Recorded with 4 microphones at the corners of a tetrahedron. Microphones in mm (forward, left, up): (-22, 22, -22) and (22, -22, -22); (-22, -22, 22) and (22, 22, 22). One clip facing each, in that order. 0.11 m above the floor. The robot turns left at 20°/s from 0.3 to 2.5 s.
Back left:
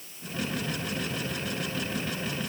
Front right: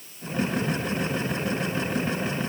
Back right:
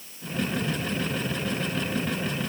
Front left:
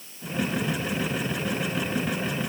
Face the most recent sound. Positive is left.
No sound to turn to.